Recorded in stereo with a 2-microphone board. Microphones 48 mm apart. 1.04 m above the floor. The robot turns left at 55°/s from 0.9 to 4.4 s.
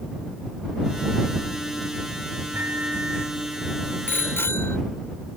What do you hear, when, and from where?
2.5 s a microwave: 125° right; by 3.4 s 170° right
4.1 s a bicycle bell: 45° left (ahead or behind); by 4.8 s 65° left (ahead or behind)